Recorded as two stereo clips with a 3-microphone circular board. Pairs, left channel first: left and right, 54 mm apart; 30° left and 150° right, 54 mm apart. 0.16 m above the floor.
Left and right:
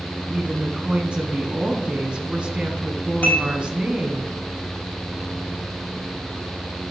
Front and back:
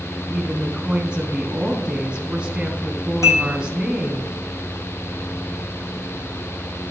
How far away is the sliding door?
No sliding door in this recording.